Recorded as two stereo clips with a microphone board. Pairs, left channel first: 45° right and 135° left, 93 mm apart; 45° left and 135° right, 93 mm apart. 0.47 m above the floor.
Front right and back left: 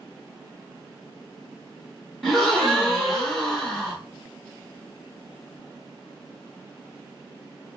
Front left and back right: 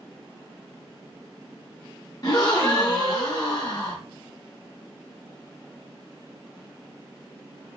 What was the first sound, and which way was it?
A gasp, 40° left.